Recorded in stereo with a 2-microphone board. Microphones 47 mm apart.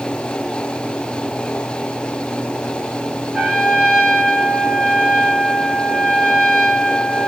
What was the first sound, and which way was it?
A trumpet, 15° right (ahead or behind).